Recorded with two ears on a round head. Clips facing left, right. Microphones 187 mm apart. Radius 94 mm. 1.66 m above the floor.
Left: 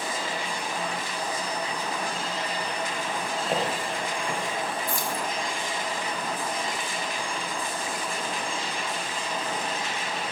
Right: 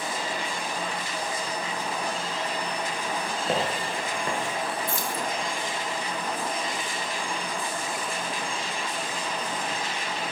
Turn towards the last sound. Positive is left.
turn(degrees=-20)  # may be behind; listen again after turning